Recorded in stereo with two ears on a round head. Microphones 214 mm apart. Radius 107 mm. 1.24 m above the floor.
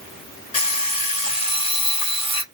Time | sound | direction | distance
0.5 | an alarm clock | 25° left (ahead or behind) | 1.6 m